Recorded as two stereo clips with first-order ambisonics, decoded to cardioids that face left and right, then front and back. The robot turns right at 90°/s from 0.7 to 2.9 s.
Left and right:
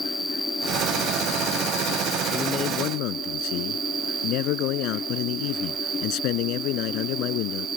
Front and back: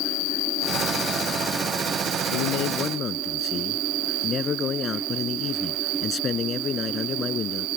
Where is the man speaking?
10° left; by 7.7 s 60° left.